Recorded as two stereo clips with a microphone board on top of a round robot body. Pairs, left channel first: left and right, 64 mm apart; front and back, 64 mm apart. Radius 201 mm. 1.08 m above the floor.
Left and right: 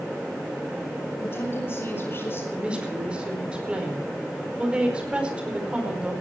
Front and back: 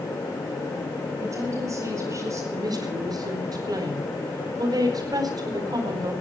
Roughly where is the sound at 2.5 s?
Behind.